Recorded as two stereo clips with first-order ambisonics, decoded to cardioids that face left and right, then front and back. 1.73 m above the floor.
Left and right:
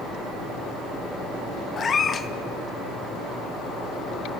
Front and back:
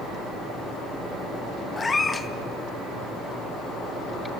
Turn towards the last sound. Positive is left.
turn(degrees=60)